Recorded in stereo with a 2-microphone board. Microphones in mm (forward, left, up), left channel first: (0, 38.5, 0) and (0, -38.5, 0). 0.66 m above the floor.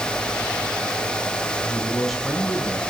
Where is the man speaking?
Centre (ahead or behind), 4.5 m; by 2.8 s 5° left (ahead or behind), 5.5 m.